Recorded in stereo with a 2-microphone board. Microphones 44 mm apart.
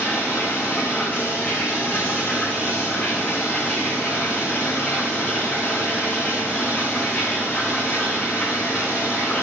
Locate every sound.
0.0 s running water: 25° left (ahead or behind), 5 m